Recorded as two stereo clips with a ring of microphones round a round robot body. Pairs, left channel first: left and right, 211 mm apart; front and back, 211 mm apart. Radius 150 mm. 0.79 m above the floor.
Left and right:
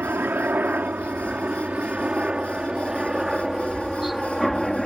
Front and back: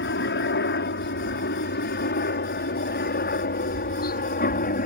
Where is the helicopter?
10° right; by 4.9 s straight ahead.